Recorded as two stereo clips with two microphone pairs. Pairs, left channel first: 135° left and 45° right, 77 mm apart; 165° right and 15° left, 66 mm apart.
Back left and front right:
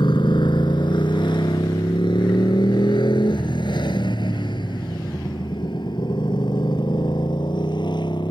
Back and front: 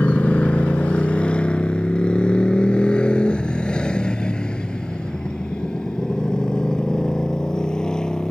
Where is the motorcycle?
125° left; by 8.3 s 115° left.